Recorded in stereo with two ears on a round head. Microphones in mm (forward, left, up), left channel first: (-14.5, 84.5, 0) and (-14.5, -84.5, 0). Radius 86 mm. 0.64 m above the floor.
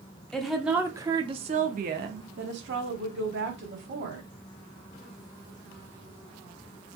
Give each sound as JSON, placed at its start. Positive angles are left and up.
{"t": 0.3, "sound": "a woman speaking", "side_deg": 5, "distance_m": 1.1}